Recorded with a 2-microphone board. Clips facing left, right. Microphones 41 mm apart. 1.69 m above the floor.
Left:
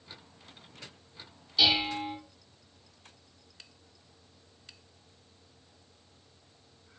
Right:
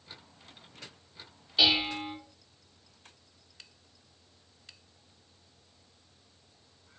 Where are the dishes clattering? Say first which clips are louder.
Even; 30° right (ahead or behind), 1.1 m.